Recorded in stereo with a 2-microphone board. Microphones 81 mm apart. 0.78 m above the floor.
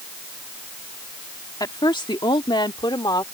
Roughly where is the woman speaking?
Left.